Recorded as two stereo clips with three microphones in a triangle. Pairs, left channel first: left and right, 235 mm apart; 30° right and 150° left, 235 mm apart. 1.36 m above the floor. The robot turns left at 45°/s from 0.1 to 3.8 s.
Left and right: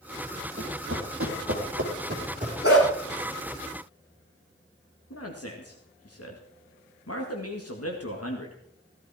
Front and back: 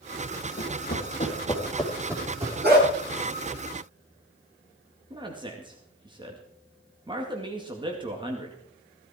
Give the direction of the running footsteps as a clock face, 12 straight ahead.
2 o'clock.